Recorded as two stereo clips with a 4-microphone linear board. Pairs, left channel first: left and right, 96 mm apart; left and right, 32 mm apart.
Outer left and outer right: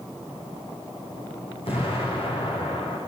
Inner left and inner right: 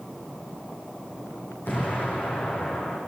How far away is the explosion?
About 9.5 m.